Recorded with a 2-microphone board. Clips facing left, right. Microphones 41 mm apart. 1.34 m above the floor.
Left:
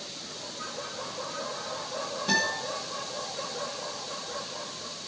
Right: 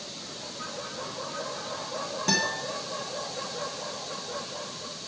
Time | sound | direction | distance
2.3 | a guitar | 65° right (ahead or behind) | 6 m